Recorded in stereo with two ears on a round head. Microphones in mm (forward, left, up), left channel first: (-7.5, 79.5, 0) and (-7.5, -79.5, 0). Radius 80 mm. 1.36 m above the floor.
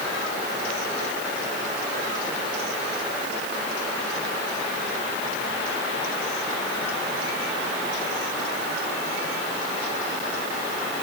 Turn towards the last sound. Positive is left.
No sound to turn to.